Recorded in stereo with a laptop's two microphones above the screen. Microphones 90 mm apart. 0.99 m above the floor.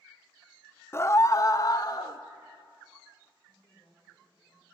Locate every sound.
0.9 s a scream: 25° left (ahead or behind), 0.6 m; by 2.2 s 45° left (ahead or behind), 1.3 m
3.5 s a woman speaking: 55° left (ahead or behind), 4 m